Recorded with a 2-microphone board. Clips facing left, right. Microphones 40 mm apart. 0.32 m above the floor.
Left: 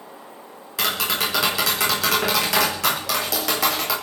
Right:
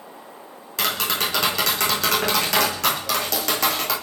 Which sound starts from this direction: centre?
Tapping, at 0.8 s.